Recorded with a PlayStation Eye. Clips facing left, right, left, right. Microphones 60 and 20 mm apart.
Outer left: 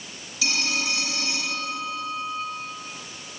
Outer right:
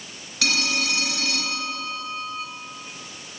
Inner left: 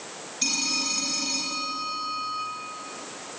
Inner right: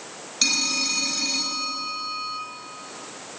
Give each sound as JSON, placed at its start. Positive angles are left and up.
{"t": 0.4, "sound": "a phone ringing", "side_deg": -65, "distance_m": 3.0}